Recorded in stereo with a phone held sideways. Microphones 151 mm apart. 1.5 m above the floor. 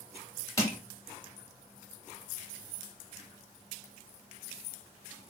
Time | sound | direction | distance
0.6 | crushing | 20° left (ahead or behind) | 1.3 m